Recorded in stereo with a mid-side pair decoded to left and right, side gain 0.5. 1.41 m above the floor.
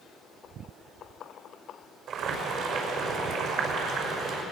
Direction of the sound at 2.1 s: 70° right.